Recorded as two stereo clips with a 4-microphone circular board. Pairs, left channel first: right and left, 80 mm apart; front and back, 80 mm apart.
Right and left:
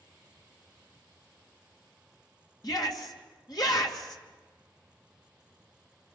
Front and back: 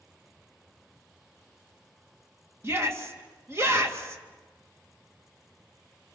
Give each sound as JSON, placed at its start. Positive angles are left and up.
{"t": 2.6, "sound": "a shout", "azimuth_deg": -125, "distance_m": 2.5}